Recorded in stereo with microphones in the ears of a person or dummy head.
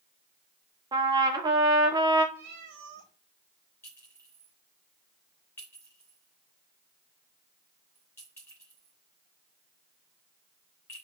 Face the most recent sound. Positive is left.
turn(degrees=15)  # may be behind; listen again after turning